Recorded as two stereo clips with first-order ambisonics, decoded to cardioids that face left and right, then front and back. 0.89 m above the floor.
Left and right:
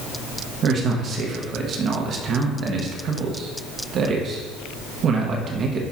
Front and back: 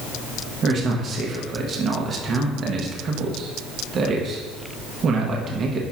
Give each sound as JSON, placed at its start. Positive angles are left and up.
{"t": 0.6, "sound": "a man speaking", "azimuth_deg": -135, "distance_m": 0.9}